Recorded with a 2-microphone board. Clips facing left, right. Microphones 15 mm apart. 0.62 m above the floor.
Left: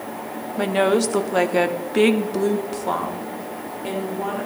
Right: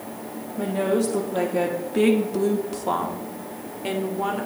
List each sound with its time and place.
0.6 s a woman speaking: 55° left (ahead or behind), 1.4 m; by 4.5 s 25° right (ahead or behind), 1.9 m